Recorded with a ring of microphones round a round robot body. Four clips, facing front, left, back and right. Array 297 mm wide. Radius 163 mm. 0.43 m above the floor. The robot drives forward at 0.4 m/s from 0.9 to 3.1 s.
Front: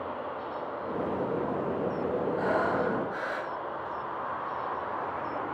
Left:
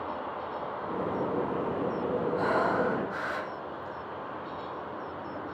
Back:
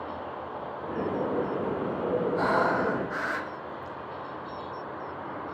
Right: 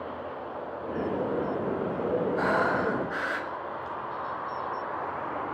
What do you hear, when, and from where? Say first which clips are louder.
2.4 s breathing: left 1 dB, back 2 dB; 160° right, 0.7 m; by 4.0 s 165° right, 1.0 m